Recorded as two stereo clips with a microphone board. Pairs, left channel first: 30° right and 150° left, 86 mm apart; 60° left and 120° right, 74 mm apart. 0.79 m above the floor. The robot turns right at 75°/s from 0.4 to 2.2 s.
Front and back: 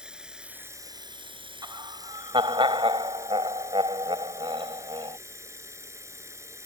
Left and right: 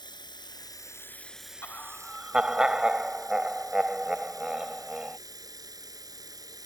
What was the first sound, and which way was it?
Running water, 70° left.